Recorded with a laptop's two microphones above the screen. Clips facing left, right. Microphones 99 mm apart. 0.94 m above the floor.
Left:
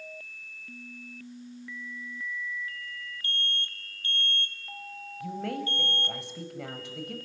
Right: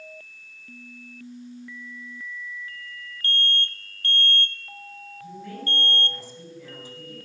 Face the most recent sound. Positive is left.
turn(degrees=75)  # may be behind; listen again after turning